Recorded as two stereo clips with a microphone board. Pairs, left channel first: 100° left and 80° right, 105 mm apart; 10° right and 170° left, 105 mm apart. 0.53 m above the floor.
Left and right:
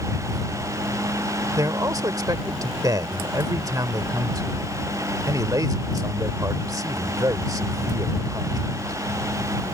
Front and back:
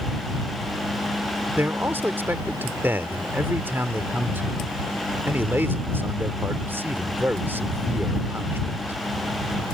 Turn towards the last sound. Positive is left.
turn(degrees=-125)